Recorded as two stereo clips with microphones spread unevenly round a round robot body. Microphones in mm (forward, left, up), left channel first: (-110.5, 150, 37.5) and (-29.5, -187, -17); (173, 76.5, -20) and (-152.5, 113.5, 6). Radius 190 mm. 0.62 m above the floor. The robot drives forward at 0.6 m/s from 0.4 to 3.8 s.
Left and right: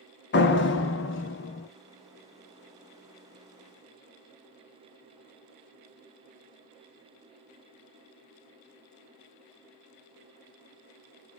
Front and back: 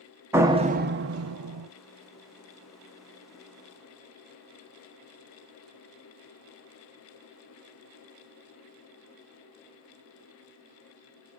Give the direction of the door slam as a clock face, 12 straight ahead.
9 o'clock.